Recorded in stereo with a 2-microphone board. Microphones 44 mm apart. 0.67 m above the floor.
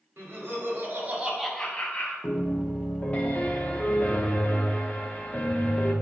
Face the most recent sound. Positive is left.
turn(degrees=30)  # may be behind; listen again after turning